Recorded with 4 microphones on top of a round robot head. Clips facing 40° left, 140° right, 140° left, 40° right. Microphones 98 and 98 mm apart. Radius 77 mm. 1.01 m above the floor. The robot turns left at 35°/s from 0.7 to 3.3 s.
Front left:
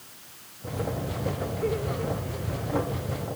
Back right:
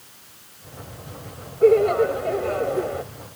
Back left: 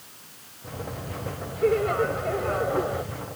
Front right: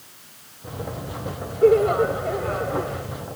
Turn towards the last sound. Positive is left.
turn(degrees=-160)